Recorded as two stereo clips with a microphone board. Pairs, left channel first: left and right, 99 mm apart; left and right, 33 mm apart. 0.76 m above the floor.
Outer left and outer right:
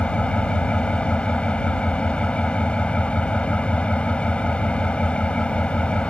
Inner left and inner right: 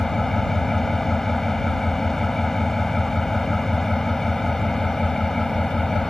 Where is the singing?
No singing in this recording.